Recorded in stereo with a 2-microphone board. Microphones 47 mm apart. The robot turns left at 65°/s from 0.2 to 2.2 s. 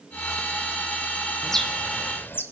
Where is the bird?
175° left, 1.2 m; by 2.4 s 125° left, 1.2 m.